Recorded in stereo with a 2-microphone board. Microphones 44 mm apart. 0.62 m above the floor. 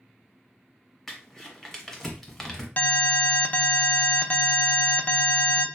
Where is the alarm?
40° left (ahead or behind), 0.5 m.